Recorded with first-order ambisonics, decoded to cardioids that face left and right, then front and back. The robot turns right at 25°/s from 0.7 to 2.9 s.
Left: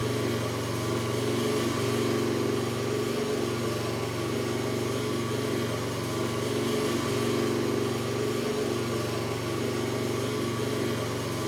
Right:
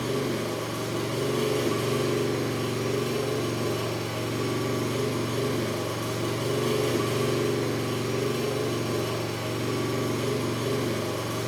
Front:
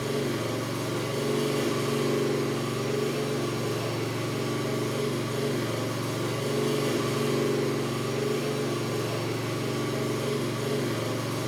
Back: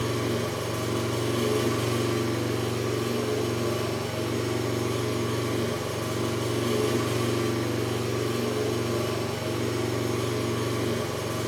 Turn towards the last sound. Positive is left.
turn(degrees=-125)